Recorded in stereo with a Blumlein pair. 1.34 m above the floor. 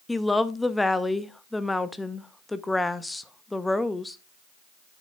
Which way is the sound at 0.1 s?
5° left.